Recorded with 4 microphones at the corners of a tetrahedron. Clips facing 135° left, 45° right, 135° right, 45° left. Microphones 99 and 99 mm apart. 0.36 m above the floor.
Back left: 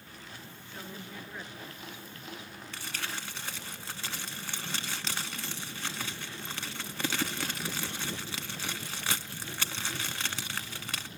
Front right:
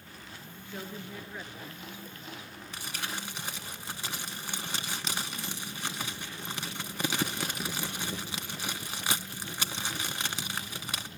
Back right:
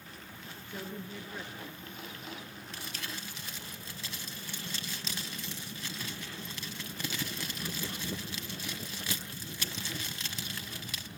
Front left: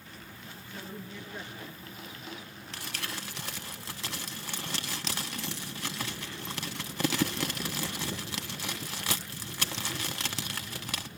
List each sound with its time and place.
0.7 s a woman speaking: 120° right, 5 m; by 2.6 s 150° right, 5 m
2.7 s crumpling: 30° left, 0.7 m